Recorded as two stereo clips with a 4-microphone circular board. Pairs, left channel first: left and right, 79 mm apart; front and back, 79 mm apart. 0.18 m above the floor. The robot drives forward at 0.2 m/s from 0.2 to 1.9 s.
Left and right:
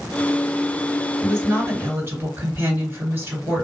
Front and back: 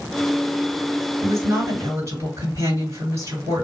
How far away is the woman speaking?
About 2.5 m.